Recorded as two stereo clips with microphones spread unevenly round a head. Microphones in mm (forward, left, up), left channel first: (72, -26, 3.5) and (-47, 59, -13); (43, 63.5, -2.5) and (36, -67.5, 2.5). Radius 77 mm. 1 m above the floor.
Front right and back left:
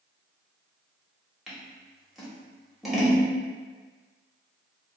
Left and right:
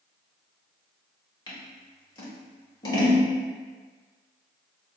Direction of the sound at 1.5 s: 50° left.